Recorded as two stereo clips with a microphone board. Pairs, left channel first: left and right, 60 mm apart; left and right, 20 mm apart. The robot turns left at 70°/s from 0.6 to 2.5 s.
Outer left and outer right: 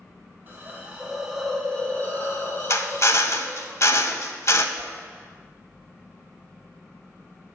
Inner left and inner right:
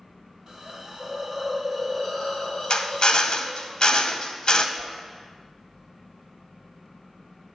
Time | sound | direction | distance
0.5 | a hiss | 125° right | 1.6 m
2.7 | a drill | 55° left (ahead or behind) | 0.6 m
4.8 | a whoosh | 55° left (ahead or behind) | 3 m